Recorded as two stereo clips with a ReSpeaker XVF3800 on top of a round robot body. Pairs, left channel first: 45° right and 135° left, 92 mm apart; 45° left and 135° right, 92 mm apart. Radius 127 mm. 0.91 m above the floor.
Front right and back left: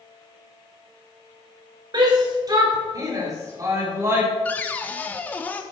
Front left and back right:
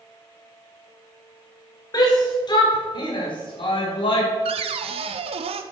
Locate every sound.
1.9 s a shout: 90° left, 4 m; by 4.3 s 70° left, 4 m
4.5 s a cupboard door: 120° right, 0.7 m